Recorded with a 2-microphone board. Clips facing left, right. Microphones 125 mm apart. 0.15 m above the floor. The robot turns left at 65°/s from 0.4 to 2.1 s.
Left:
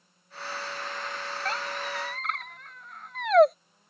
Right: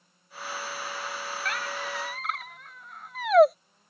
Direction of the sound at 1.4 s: 35° left (ahead or behind).